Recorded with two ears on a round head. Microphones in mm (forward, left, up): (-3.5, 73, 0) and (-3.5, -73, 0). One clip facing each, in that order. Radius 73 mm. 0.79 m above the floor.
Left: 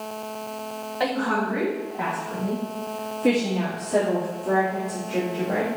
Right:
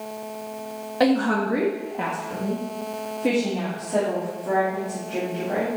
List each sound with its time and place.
1.0 s a woman speaking: 50° right (ahead or behind), 1.1 m; by 5.7 s 15° left (ahead or behind), 2.5 m